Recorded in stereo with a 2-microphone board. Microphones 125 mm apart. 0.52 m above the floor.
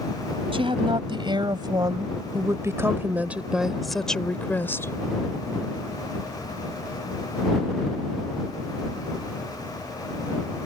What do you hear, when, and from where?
0.5 s a woman speaking: 45° right (ahead or behind); by 4.9 s 20° left (ahead or behind)